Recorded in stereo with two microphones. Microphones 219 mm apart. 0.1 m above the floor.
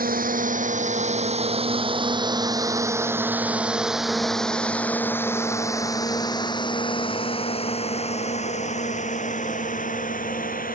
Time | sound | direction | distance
0.0 | a drone | 40° right (ahead or behind) | ?